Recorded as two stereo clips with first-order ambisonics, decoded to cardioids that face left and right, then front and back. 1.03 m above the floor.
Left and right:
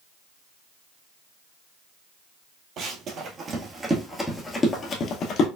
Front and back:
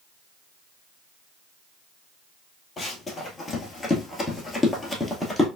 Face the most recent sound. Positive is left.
turn(degrees=85)